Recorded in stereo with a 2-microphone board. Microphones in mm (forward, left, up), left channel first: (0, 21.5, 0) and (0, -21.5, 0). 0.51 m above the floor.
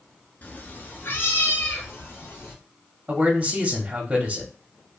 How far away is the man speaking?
About 0.9 m.